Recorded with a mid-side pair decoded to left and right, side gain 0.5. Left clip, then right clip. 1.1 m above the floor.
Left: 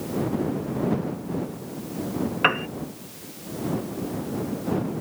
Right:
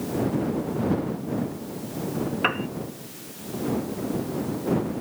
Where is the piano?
30° left.